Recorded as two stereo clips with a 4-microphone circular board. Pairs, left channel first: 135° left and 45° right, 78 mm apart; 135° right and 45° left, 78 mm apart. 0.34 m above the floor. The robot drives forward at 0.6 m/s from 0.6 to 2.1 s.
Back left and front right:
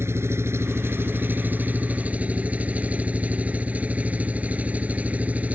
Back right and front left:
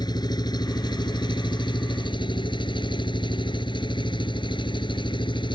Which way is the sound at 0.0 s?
105° right.